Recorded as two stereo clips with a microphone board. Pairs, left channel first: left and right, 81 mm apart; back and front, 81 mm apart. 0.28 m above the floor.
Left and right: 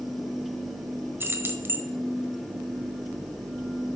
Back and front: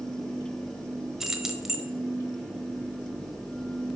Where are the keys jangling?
80° right, 0.9 m.